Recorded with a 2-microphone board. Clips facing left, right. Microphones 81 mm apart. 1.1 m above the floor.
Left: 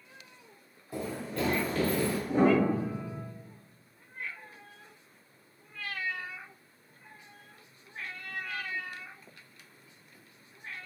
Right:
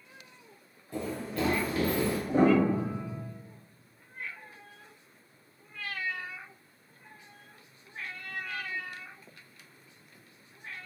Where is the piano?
45° right (ahead or behind), 1.8 m.